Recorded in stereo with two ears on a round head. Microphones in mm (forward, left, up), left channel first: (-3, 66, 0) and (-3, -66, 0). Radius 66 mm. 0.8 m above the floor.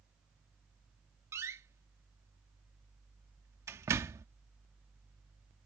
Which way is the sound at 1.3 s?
20° right (ahead or behind).